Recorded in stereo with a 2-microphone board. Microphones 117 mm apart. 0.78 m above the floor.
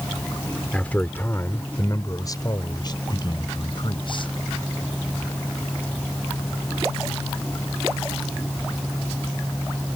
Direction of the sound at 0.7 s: 10° left (ahead or behind).